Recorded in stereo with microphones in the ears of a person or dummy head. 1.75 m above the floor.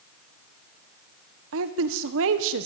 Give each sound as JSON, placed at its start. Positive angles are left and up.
{"t": 1.5, "sound": "a woman speaking", "side_deg": -75, "distance_m": 1.5}